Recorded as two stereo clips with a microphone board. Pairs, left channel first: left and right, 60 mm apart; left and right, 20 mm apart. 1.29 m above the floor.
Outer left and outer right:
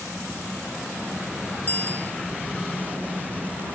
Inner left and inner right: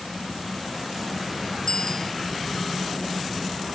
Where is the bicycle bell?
30° left (ahead or behind).